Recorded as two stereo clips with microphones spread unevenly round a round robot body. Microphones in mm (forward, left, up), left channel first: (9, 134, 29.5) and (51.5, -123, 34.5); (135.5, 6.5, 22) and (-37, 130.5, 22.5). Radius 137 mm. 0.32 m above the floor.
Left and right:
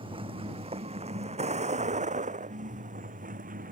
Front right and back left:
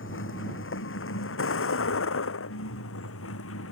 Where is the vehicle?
10° right; by 3.7 s 20° right.